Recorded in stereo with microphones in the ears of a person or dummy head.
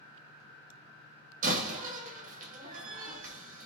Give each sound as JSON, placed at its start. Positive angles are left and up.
{"t": 1.4, "sound": "a door slam", "side_deg": -45, "distance_m": 1.1}